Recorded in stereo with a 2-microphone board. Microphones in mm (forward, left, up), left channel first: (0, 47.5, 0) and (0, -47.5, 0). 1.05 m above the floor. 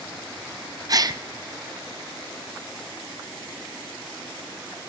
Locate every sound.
0.9 s a gasp: 40° right (ahead or behind), 0.5 m